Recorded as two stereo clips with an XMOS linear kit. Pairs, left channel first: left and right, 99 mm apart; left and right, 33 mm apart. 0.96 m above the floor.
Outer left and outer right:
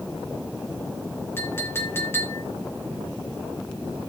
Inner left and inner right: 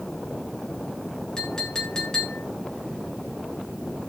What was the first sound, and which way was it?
A clink, 25° left (ahead or behind).